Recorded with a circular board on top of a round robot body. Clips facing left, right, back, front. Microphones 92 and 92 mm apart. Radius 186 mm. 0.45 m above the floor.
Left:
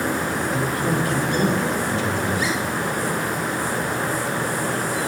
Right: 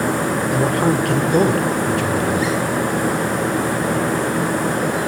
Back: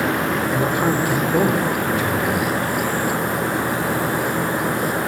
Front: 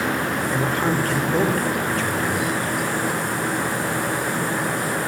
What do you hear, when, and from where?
0.5 s a man speaking: 105° right, 3 m